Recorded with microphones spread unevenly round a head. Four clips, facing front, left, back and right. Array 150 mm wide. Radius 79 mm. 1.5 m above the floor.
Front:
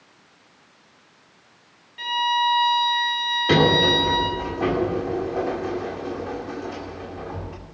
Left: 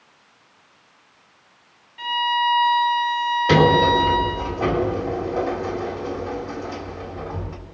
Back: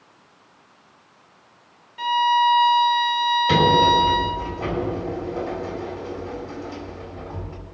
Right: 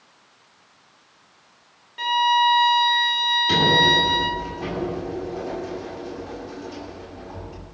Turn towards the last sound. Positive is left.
turn(degrees=45)